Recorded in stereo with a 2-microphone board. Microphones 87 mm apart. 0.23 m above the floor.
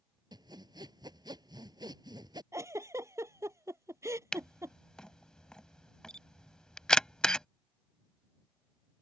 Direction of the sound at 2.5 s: 35° right (ahead or behind).